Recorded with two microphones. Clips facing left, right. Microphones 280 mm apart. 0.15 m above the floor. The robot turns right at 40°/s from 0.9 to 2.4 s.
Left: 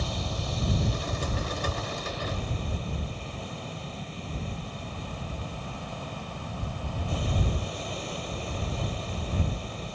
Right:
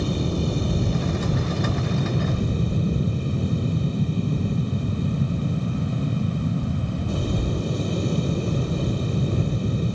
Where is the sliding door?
No sliding door in this recording.